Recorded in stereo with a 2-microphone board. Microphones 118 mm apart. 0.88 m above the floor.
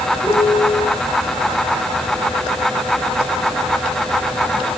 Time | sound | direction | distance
0.2 | a piano | 10° left (ahead or behind) | 5.5 m